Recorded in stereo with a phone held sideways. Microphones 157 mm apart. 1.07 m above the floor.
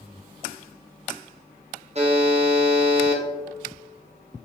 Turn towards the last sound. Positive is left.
turn(degrees=-45)  # may be behind; listen again after turning